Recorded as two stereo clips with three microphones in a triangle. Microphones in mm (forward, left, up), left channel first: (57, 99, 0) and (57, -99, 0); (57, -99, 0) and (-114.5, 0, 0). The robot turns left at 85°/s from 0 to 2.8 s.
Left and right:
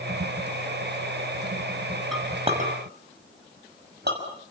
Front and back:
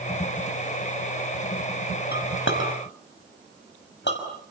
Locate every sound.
2.1 s a clink: straight ahead, 5.5 m; by 4.2 s 55° right, 5.5 m